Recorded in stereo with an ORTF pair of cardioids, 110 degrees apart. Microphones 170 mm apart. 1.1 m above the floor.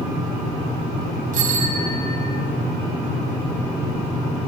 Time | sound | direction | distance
1.3 | a bicycle bell | 50° right | 8 m